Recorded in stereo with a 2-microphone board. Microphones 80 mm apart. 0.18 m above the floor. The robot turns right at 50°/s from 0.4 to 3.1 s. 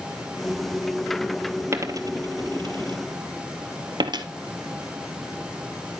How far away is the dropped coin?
About 0.9 m.